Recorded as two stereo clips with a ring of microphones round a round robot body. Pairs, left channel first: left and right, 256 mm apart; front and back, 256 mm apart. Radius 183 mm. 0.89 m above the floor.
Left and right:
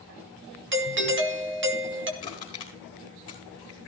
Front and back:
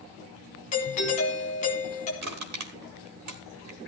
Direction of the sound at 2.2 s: 170° left.